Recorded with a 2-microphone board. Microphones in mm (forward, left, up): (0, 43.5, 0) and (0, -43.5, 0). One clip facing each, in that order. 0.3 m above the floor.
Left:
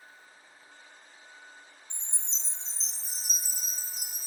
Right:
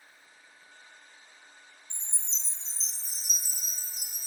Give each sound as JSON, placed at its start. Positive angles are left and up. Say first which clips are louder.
{"t": 1.9, "sound": "a chime", "louder": "even", "side_deg": 40, "distance_m": 1.3}